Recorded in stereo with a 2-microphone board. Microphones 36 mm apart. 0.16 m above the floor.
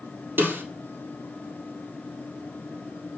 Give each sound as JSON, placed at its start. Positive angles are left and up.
{"t": 0.4, "sound": "a snare drum", "side_deg": -75, "distance_m": 3.5}